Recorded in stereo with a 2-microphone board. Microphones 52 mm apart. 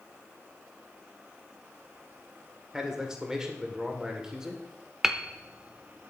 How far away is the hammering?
About 0.8 m.